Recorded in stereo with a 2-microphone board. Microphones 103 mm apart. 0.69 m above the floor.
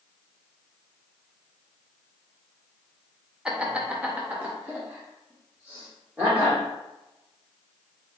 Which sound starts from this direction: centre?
Laughter, at 3.5 s.